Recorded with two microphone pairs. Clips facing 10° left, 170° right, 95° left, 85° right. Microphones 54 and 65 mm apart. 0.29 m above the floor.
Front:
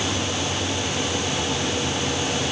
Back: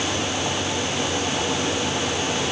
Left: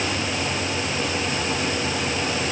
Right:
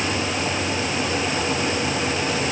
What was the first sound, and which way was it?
Only background noise.